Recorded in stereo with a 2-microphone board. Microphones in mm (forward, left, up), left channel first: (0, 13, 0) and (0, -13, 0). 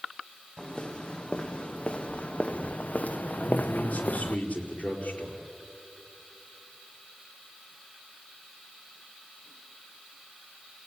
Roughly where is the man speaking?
Left.